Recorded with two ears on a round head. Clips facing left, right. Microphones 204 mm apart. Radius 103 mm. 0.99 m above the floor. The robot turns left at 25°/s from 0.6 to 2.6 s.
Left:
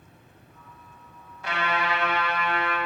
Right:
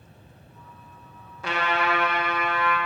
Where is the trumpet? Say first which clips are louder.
Right 2 dB; 65° right (ahead or behind), 1.2 m; by 2.8 s 35° right (ahead or behind), 1.2 m.